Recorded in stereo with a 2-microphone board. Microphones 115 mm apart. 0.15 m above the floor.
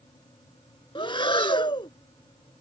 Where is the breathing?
45° left (ahead or behind).